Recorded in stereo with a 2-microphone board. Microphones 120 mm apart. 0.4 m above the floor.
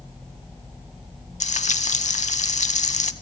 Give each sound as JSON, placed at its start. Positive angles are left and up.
{"t": 1.4, "sound": "frying", "side_deg": 80, "distance_m": 0.6}